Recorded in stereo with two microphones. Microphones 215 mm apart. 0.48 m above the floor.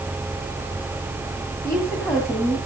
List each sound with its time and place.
1.6 s a woman speaking: 15° left (ahead or behind), 3 m